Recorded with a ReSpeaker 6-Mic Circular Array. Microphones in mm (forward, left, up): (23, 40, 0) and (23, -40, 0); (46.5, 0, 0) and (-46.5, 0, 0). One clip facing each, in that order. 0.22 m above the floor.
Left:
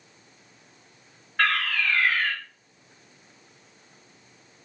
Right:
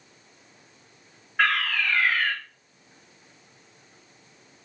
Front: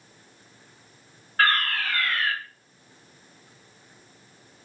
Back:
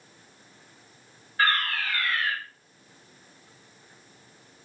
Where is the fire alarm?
10° right, 6 m.